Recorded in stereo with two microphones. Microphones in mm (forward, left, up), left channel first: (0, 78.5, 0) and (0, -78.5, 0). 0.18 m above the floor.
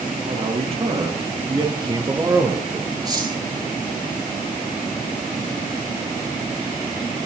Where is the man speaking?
45° right (ahead or behind), 4.5 m; by 3.0 s 10° right (ahead or behind), 2.5 m.